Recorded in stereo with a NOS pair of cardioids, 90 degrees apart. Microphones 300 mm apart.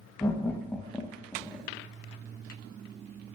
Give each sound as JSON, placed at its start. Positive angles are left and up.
{"t": 0.2, "sound": "laughter", "azimuth_deg": 10, "distance_m": 1.4}